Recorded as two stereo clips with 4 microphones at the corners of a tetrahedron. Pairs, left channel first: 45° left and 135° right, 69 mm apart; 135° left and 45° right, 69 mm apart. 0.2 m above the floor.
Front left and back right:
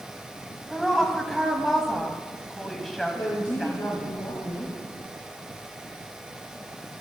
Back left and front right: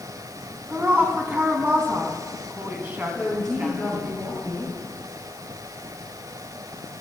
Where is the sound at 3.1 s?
45° left, 3.5 m.